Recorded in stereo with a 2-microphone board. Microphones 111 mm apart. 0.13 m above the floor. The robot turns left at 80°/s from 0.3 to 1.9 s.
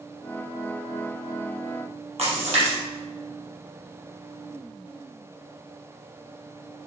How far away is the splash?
About 4.5 m.